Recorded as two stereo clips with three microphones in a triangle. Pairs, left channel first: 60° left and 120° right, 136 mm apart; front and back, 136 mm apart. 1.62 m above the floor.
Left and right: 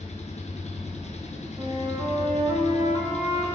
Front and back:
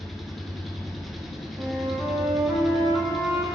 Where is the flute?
130° right, 1.1 m.